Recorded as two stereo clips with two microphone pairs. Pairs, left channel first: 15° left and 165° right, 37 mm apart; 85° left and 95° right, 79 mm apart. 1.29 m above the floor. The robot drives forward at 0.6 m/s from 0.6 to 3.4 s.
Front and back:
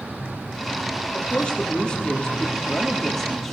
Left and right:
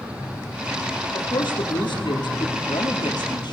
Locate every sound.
1.1 s a woman speaking: 80° left, 3.5 m; by 3.5 s 100° left, 3.5 m